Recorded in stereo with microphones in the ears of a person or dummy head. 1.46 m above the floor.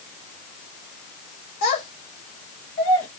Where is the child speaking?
40° left (ahead or behind), 1.0 m; by 3.1 s 10° left (ahead or behind), 0.7 m.